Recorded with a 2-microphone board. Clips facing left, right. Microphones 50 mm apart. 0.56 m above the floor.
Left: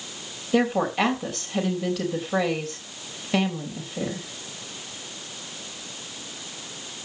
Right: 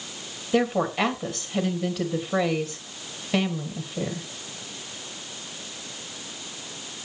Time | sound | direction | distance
0.5 | a woman speaking | centre (ahead or behind) | 3 m